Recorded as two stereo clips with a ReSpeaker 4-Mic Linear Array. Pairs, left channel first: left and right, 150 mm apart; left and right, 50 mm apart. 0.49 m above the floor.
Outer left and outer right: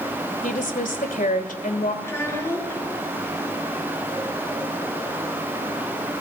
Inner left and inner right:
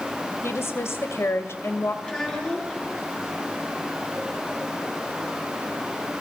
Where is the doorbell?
I don't hear a doorbell.